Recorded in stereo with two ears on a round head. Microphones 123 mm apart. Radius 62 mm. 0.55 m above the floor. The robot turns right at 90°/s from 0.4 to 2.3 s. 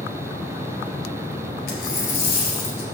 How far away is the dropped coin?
About 2.5 m.